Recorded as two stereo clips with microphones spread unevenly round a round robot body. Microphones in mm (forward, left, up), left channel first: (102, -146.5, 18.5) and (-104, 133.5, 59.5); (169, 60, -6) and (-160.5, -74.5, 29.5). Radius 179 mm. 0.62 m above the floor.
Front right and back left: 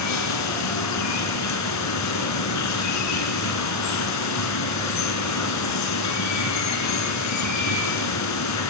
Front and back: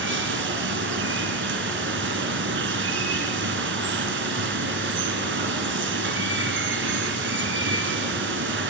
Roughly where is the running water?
Right.